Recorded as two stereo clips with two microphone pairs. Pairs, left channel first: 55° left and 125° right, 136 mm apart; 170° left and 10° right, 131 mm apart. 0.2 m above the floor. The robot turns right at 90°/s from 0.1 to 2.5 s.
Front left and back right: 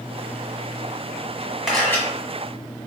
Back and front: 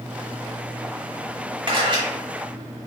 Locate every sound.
1.7 s a camera shutter: 35° right, 1.6 m; by 2.0 s 5° right, 1.6 m